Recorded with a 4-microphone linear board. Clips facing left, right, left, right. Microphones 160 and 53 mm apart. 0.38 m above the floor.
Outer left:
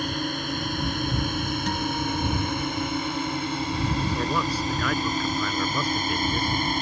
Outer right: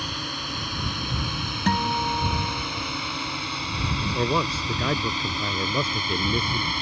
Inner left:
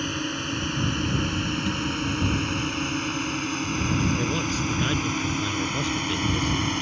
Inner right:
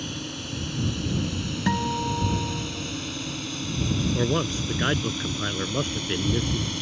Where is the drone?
50° left (ahead or behind); by 6.8 s 45° left (ahead or behind).